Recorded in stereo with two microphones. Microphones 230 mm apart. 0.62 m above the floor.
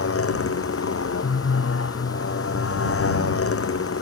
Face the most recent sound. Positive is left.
turn(degrees=75)  # may be behind; listen again after turning